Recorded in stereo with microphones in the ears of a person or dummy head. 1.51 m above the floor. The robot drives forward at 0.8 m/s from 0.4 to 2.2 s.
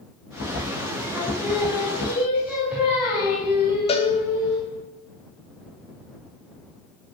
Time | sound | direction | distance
1.1 | singing | centre (ahead or behind) | 4 m
3.9 | a cowbell | 40° left (ahead or behind) | 1.5 m